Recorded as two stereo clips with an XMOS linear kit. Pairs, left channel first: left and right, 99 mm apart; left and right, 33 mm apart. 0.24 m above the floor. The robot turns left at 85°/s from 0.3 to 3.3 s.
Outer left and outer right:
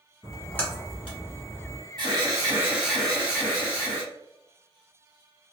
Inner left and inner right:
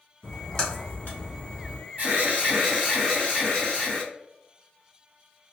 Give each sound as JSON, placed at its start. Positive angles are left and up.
{"t": 0.2, "sound": "a splash", "side_deg": -5, "distance_m": 1.0}
{"t": 2.0, "sound": "an alarm", "azimuth_deg": -95, "distance_m": 1.5}